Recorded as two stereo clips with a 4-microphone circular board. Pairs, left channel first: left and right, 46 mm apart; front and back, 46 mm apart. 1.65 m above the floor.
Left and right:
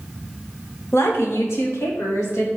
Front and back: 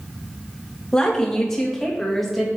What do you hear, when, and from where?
0.9 s a woman speaking: 75° left, 2 m; by 2.5 s 90° left, 2.5 m